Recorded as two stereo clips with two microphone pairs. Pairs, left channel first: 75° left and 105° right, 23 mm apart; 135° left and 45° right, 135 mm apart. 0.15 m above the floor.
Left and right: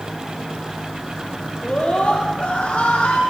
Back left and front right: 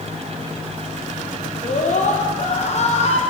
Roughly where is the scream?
Left.